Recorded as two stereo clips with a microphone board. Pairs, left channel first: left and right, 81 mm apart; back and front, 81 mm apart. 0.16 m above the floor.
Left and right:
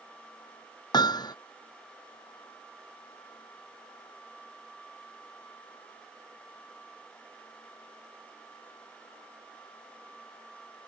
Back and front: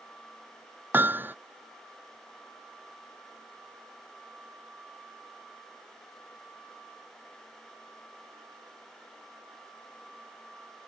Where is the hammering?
65° left.